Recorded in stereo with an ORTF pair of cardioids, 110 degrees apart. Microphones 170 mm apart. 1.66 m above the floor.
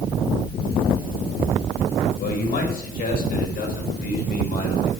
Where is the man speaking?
60° left, 8 m; by 4.9 s 65° left, 6 m.